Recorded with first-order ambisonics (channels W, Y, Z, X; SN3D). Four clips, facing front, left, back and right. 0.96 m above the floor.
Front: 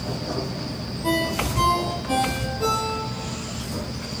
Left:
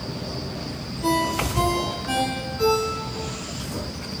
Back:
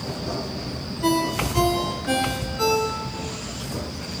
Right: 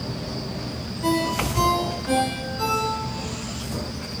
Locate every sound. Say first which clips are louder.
1.0 s a ringtone: even, back 1 dB; 175° right, 7.5 m